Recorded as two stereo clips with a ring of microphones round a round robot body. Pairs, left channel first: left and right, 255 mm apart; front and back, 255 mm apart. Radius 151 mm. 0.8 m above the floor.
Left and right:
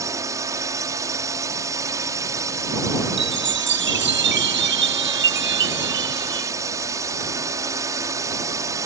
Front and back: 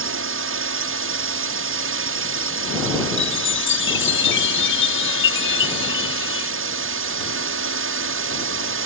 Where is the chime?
45° right.